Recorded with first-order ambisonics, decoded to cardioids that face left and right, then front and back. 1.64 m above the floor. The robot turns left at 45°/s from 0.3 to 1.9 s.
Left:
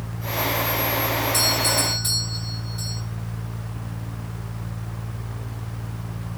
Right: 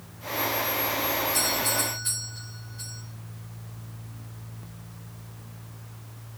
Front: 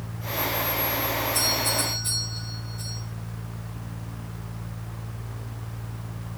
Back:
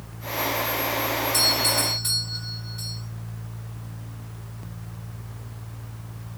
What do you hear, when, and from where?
1.3 s a doorbell: 135° left, 7 m; by 3.0 s 110° left, 7 m